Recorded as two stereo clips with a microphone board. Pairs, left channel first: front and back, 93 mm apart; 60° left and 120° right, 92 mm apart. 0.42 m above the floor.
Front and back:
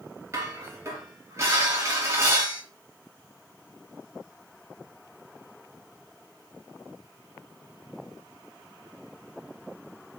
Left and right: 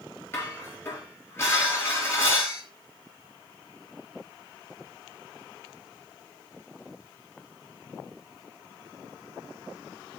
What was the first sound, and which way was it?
Dishes clattering, 120° left.